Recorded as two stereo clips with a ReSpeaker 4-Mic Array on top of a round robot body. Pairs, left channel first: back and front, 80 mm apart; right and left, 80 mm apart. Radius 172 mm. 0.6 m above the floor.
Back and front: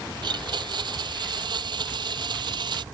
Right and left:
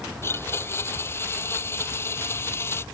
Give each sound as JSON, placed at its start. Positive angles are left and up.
{"t": 0.2, "sound": "a blender", "azimuth_deg": -30}